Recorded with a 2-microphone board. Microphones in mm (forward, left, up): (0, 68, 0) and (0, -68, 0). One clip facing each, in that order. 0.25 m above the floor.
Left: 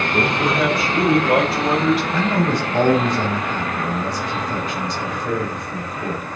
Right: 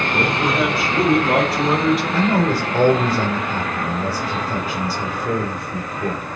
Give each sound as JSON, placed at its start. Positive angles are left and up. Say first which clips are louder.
{"t": 0.1, "sound": "a man speaking", "louder": "even", "side_deg": -10, "distance_m": 4.0}
{"t": 2.1, "sound": "a man speaking", "louder": "right 1 dB", "side_deg": -5, "distance_m": 4.0}